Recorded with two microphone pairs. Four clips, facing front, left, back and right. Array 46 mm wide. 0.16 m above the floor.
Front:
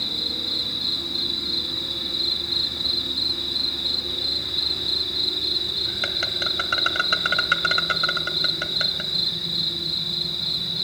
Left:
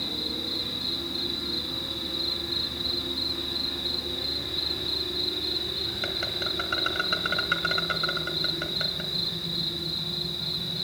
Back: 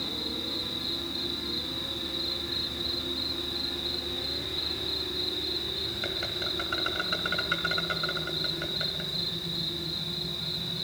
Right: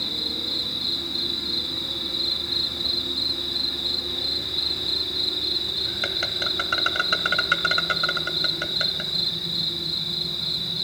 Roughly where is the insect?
Ahead right.